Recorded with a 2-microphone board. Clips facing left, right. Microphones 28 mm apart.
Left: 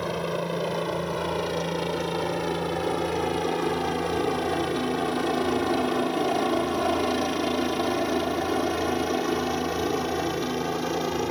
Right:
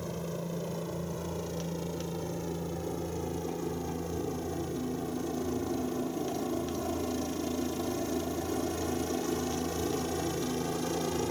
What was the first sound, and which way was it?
A helicopter, 50° left (ahead or behind).